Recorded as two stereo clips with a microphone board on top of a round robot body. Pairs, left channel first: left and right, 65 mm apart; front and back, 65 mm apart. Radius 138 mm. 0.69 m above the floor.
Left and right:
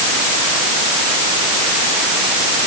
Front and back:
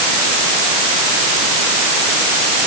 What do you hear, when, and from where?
Only background noise.